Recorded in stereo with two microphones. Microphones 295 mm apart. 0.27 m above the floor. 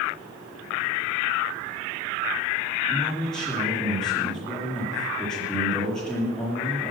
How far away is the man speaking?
About 7 m.